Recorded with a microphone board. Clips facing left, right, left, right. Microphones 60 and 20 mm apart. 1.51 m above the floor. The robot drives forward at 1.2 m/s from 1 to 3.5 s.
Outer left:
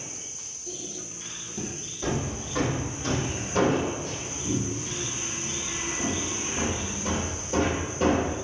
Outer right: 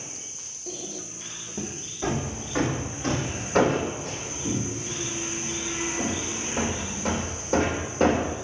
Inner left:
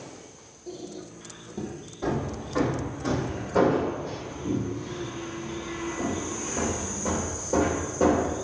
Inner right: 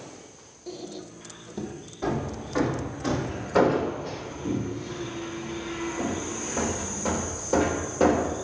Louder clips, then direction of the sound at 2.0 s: Outer right 1 dB, even; 30° right (ahead or behind).